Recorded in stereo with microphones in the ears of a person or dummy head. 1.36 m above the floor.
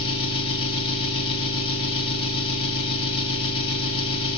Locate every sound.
0.0 s an engine running: 30° left (ahead or behind), 4 m